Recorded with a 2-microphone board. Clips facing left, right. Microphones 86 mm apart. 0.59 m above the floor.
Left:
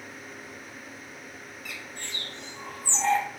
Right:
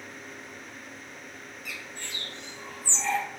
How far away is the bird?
About 1.0 m.